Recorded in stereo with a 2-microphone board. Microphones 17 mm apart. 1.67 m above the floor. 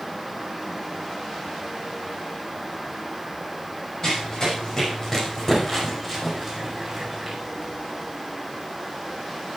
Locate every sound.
4.0 s running footsteps: 35° left (ahead or behind), 6 m; by 7.4 s 10° right (ahead or behind), 5.5 m